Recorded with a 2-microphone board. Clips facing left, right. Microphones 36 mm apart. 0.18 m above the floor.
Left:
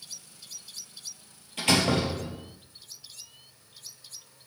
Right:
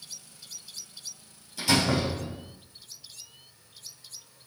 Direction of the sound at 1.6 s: 45° left (ahead or behind).